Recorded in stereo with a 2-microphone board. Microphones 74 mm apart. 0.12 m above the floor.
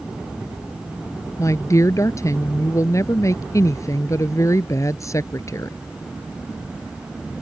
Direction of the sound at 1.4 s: 45° left (ahead or behind).